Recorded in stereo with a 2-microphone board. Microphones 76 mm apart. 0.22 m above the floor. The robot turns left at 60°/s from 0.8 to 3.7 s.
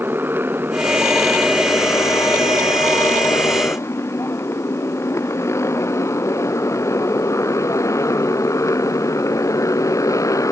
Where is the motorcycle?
30° right (ahead or behind); by 10.5 s 45° left (ahead or behind).